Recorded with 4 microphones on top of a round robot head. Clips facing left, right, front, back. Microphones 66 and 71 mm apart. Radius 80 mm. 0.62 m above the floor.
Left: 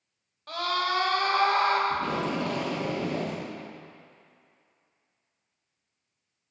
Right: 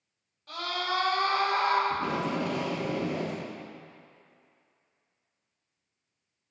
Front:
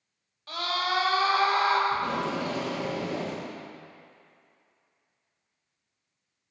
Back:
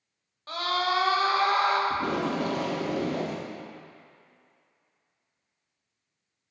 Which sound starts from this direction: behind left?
A scream, at 0.5 s.